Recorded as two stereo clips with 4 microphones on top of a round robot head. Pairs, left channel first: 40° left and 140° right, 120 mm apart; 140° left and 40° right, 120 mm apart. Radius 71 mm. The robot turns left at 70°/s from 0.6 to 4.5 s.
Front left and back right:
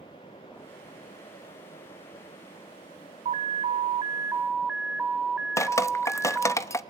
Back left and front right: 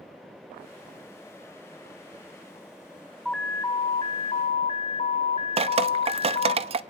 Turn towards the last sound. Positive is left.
turn(degrees=-20)